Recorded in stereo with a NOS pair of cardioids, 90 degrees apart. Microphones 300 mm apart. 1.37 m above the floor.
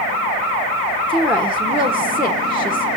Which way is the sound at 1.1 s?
5° right.